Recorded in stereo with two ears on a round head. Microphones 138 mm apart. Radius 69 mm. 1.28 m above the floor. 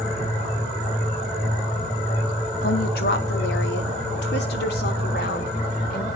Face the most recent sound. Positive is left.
turn(degrees=65)  # may be behind; listen again after turning